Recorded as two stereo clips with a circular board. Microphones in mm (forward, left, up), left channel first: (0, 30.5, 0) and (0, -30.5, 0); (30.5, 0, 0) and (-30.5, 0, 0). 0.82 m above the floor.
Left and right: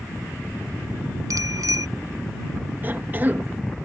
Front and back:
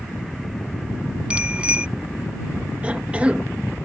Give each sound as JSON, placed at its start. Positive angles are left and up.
{"t": 1.3, "sound": "a bicycle bell", "azimuth_deg": -110}
{"t": 2.8, "sound": "a cough", "azimuth_deg": -120}